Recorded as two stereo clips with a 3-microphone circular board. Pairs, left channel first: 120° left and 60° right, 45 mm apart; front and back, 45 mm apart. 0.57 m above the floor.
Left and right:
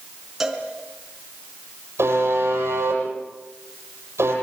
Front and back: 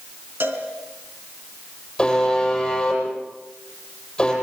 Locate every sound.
0.4 s a cowbell: 145° right, 4 m
2.0 s a buzzer: 75° right, 9 m